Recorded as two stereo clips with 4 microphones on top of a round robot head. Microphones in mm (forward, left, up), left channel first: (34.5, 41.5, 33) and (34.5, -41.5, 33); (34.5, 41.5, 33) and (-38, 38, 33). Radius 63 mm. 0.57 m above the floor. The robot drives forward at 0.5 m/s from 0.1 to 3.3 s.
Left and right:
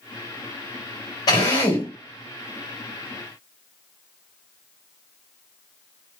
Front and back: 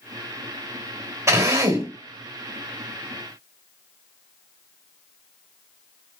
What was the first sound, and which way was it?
A drill, 130° left.